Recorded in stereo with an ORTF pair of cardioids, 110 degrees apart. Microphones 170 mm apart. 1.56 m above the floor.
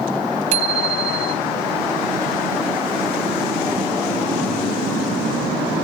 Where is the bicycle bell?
45° right, 4 m.